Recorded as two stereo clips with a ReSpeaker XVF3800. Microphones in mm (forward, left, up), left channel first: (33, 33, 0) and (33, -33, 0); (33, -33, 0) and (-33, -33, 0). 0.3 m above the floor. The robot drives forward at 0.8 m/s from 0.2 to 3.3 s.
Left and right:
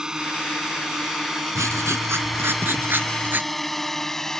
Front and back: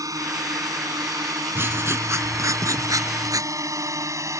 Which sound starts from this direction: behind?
A drone, at 0.0 s.